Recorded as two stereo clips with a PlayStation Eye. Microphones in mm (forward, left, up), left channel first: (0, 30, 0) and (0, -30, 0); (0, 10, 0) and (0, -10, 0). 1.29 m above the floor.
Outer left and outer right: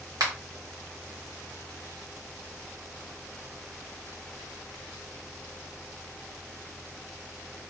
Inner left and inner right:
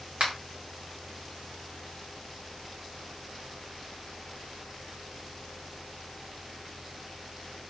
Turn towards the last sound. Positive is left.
turn(degrees=-75)  # may be behind; listen again after turning